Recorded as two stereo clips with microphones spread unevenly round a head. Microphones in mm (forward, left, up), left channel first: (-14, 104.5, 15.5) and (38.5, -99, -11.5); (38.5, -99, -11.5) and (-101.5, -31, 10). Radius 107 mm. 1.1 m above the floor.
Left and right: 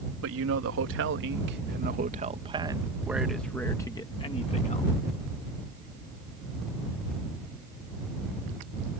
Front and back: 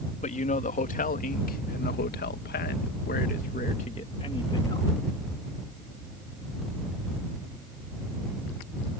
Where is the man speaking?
60° right; by 4.9 s 45° left.